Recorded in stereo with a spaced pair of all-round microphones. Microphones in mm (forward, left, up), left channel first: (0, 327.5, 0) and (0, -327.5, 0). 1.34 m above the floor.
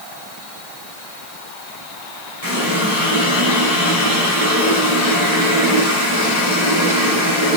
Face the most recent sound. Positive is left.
turn(degrees=70)  # may be behind; listen again after turning